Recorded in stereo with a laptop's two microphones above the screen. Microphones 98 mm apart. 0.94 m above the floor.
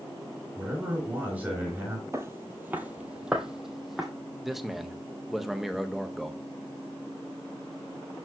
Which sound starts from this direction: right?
Footsteps, at 2.1 s.